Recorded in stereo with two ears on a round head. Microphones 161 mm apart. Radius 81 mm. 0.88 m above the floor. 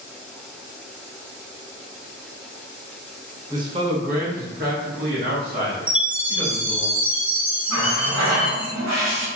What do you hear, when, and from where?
3.5 s a man speaking: 20° right (ahead or behind), 0.6 m; by 6.9 s 65° right (ahead or behind), 2.0 m
5.9 s a chime: 5° right (ahead or behind), 0.9 m
7.7 s a running tap: 85° right, 1.3 m